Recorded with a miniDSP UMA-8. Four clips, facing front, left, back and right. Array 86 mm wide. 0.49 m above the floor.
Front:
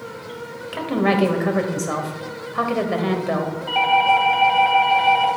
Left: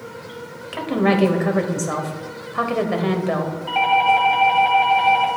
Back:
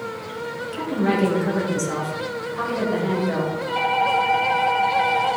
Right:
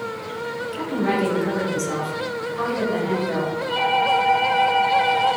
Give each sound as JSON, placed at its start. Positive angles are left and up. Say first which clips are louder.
{"t": 0.7, "sound": "a woman speaking", "louder": "left 5 dB, front 3 dB", "azimuth_deg": 45, "distance_m": 2.0}
{"t": 3.7, "sound": "a doorbell", "louder": "left 4 dB, front 5 dB", "azimuth_deg": 50, "distance_m": 3.0}